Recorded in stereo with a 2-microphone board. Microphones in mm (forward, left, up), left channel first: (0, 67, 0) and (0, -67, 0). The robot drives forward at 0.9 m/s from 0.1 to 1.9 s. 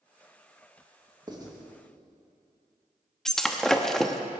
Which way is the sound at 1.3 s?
30° right (ahead or behind).